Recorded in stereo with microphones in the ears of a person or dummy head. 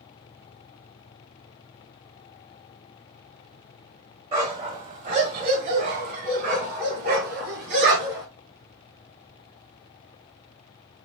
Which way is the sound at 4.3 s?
30° right (ahead or behind).